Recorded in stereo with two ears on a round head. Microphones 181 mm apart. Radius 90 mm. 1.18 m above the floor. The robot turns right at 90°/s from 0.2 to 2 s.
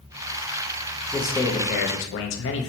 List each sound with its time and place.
1.1 s a man speaking: 15° right, 0.7 m; by 2.7 s 65° left, 0.7 m